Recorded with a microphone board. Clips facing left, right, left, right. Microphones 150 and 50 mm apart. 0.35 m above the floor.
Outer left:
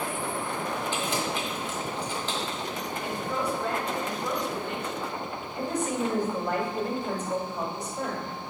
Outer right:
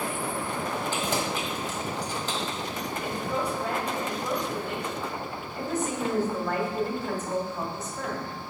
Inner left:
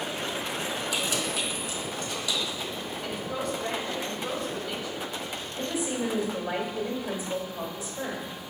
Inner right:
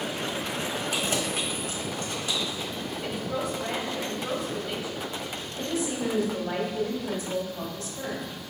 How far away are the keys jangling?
About 1.4 m.